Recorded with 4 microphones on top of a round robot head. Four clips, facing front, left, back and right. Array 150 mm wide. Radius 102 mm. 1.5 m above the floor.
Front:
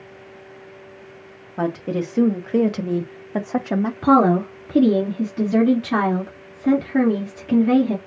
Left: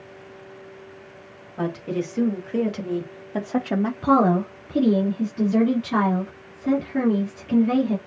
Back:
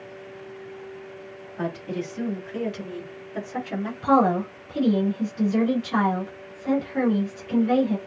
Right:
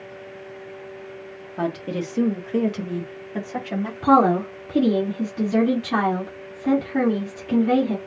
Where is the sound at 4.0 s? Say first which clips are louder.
Right 3 dB, front 4 dB; 5° right, 3.5 m.